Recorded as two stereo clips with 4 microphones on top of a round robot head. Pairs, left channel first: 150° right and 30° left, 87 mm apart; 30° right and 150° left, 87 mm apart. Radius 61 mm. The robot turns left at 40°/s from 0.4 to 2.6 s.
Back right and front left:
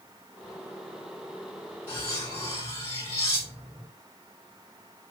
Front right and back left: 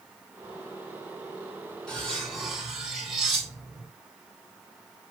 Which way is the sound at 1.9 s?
110° right.